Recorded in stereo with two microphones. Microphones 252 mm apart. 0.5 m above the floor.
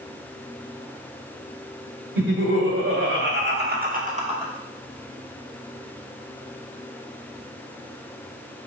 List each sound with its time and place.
2.1 s laughter: 60° right (ahead or behind), 1.8 m; by 4.5 s 15° right (ahead or behind), 0.9 m